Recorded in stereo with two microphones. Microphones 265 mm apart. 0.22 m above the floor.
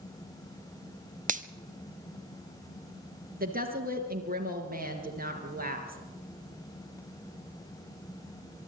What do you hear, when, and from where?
1.3 s a finger snap: 30° right (ahead or behind), 0.8 m
3.4 s a woman speaking: 35° right (ahead or behind), 3 m